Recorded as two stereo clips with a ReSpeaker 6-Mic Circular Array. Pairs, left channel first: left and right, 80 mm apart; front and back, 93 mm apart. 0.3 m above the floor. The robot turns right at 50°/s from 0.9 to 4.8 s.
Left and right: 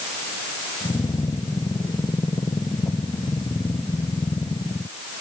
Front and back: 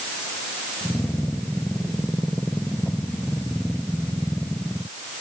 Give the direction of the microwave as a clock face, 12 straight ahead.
No microwave in this recording.